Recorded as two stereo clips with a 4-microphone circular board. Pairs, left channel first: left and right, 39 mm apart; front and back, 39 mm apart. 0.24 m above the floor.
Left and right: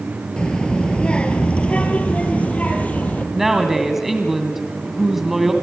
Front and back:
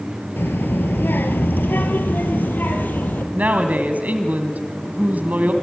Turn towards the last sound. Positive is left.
turn(degrees=-170)